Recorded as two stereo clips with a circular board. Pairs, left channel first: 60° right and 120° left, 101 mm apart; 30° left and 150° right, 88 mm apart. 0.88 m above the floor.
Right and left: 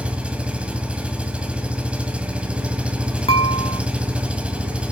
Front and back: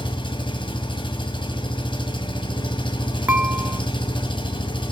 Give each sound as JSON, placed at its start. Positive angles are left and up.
{"t": 0.0, "sound": "an engine running", "azimuth_deg": 40, "distance_m": 1.6}
{"t": 3.3, "sound": "dishes clattering", "azimuth_deg": -80, "distance_m": 1.3}